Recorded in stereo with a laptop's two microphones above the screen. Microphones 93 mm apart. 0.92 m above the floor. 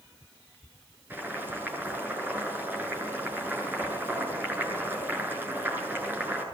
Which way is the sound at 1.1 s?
20° right (ahead or behind).